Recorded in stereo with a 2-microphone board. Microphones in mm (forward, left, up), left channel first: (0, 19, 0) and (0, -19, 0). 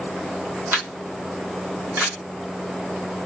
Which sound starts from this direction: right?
A camera shutter, at 0.7 s.